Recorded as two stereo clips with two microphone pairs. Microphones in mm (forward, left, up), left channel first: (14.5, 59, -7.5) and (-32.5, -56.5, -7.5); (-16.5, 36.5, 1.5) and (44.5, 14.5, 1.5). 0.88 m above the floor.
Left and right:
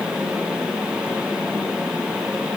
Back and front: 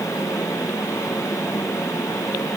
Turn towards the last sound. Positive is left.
No sound to turn to.